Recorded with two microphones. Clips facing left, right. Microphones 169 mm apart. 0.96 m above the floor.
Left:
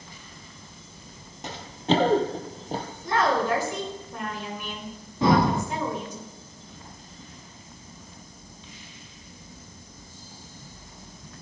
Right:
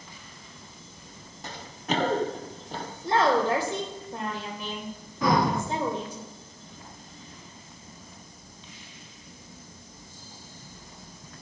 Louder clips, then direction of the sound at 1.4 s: Left 7 dB; 20° left (ahead or behind).